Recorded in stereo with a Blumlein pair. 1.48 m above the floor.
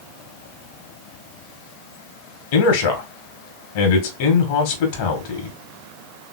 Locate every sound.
2.5 s a man speaking: 50° left, 1.5 m